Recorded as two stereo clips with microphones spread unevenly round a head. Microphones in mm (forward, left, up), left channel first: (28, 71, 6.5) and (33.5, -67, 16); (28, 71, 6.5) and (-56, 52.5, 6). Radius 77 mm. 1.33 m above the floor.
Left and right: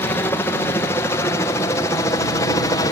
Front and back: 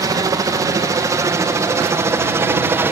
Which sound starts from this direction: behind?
A helicopter, at 0.0 s.